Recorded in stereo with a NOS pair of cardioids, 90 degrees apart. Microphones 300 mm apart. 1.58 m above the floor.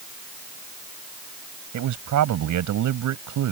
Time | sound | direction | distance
1.7 | a man speaking | 70° right | ?